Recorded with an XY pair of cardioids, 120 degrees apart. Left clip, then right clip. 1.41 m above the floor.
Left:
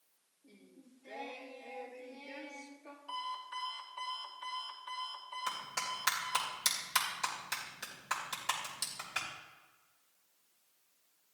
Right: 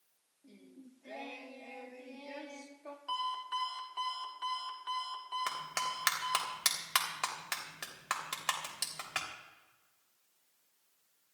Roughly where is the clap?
Ahead right.